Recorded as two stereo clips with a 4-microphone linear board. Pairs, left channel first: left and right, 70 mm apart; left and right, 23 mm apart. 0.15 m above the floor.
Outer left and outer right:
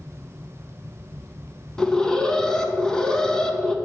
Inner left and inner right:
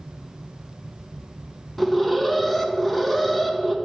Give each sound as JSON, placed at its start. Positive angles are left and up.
{"t": 1.8, "sound": "an alarm", "side_deg": 10, "distance_m": 0.7}